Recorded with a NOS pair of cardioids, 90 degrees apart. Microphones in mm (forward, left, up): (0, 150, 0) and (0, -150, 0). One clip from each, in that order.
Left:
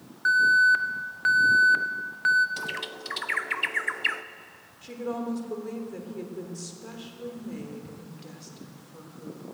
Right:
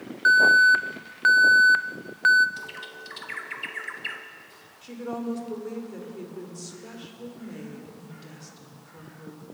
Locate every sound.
0.2 s an alarm: 25° right, 0.5 m
2.6 s a bird: 30° left, 0.6 m
4.8 s a woman speaking: 5° left, 2.5 m